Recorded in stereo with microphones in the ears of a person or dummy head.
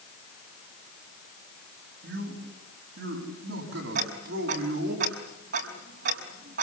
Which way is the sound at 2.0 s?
70° right (ahead or behind).